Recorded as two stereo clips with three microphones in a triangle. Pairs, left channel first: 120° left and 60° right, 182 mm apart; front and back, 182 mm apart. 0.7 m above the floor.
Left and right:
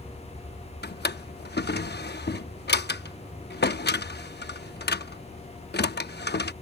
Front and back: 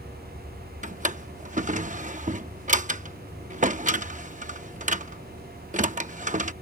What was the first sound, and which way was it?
A drawer, 135° left.